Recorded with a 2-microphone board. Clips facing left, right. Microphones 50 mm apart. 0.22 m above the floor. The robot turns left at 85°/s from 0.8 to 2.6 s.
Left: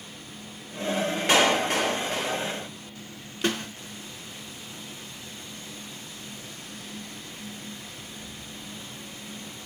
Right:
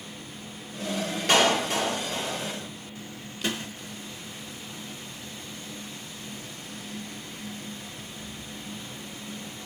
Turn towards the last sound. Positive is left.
turn(degrees=45)  # may be behind; listen again after turning